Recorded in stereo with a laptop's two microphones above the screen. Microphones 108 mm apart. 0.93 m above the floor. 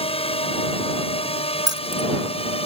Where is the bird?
I don't hear a bird.